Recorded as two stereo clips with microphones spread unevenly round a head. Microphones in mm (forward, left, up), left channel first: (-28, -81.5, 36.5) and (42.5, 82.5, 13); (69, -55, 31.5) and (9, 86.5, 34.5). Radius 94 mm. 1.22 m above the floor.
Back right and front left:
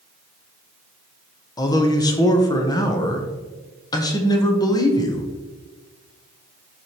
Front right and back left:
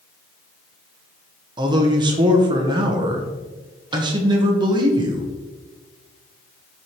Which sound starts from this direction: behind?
A man speaking, at 1.6 s.